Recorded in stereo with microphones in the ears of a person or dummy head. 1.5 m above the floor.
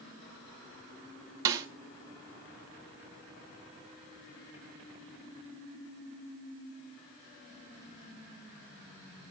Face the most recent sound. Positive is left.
turn(degrees=-20)  # may be behind; listen again after turning